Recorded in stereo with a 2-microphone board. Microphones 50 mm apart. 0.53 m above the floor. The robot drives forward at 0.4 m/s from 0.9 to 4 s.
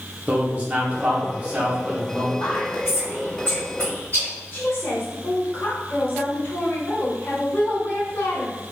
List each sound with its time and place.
0.3 s a man speaking: 25° right (ahead or behind), 0.9 m; by 2.3 s 20° right (ahead or behind), 1.3 m
2.4 s whispering: 40° left (ahead or behind), 1.9 m; by 4.3 s 30° left (ahead or behind), 2.5 m
4.5 s a woman speaking: 20° left (ahead or behind), 1.7 m